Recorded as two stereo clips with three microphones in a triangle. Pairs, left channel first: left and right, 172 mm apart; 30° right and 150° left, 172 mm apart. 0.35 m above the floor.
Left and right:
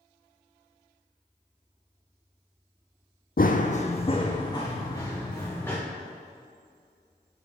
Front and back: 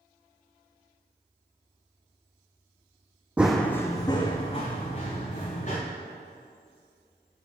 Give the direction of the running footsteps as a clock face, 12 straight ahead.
10 o'clock.